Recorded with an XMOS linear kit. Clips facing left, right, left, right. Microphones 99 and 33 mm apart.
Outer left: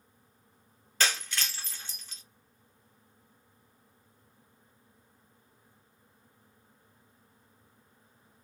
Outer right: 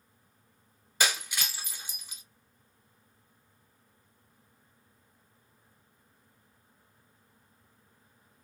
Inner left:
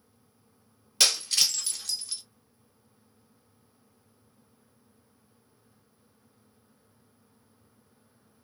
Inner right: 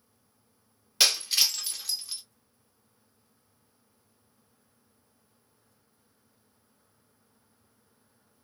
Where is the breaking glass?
10° right (ahead or behind), 0.7 m.